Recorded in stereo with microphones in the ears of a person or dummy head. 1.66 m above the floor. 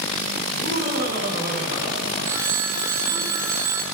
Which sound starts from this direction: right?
Laughter, at 0.5 s.